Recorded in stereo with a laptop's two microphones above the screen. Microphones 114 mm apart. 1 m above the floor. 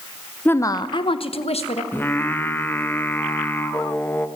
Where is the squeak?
No squeak in this recording.